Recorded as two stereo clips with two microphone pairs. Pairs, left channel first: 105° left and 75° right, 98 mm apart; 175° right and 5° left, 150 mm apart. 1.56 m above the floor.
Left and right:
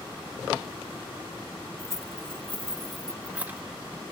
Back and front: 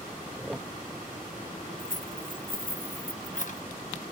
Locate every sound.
1.8 s keys jangling: 160° left, 1.4 m; by 3.6 s 140° right, 1.0 m